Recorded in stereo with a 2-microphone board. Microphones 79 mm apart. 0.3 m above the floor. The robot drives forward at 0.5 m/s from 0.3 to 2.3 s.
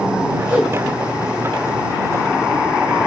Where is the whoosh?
15° right (ahead or behind), 1.0 m.